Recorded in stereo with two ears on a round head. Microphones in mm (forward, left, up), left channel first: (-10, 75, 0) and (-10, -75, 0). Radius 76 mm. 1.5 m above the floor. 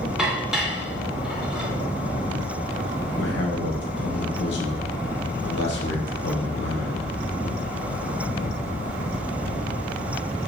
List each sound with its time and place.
0.2 s dishes clattering: 5° right (ahead or behind), 2 m
3.2 s a man speaking: 80° left, 2 m